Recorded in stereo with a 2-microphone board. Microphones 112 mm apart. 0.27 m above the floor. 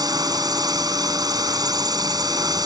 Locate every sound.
0.0 s a drone: 40° right (ahead or behind)